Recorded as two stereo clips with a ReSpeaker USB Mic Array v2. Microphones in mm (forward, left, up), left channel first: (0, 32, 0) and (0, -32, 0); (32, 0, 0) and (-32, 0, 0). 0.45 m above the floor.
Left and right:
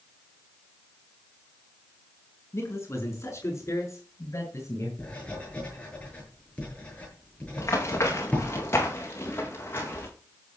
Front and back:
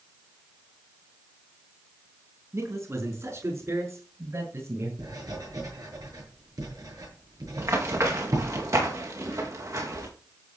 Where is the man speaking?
135° left, 5 m; by 4.9 s 130° left, 8.5 m.